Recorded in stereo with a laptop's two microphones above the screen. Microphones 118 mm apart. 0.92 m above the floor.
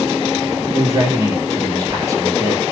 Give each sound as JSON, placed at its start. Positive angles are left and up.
{"t": 0.7, "sound": "a man speaking", "side_deg": -30, "distance_m": 2.0}